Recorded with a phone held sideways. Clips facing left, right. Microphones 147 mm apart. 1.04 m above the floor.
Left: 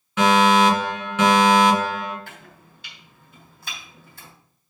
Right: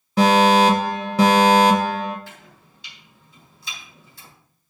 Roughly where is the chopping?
Left.